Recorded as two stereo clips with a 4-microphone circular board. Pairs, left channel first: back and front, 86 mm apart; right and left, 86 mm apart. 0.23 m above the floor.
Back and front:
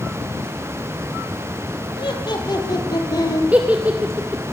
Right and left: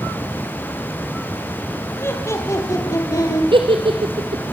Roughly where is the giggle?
Left.